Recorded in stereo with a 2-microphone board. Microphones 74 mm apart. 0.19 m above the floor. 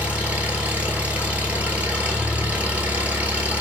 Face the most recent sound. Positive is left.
turn(degrees=-20)  # may be behind; listen again after turning